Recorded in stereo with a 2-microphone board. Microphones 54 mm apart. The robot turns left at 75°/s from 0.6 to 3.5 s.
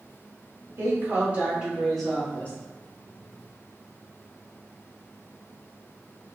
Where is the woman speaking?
95° right, 1.5 m; by 2.5 s 135° left, 1.5 m.